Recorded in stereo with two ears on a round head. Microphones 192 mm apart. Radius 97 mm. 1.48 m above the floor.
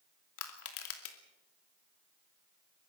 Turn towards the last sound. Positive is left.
turn(degrees=75)  # may be behind; listen again after turning